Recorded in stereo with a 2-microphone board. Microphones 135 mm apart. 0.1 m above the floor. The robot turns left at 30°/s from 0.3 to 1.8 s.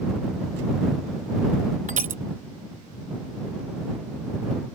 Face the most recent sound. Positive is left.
turn(degrees=-75)  # may be behind; listen again after turning